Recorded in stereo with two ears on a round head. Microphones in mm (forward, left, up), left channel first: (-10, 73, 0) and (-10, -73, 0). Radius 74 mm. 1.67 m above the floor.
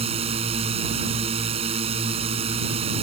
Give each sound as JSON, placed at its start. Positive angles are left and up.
{"t": 0.0, "sound": "a drone", "side_deg": -40}